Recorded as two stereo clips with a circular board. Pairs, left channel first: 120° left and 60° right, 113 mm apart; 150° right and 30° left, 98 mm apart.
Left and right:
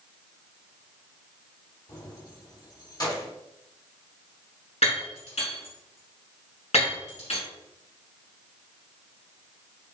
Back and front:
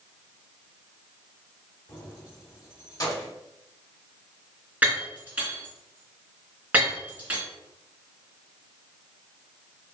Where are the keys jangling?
165° left, 1.2 m.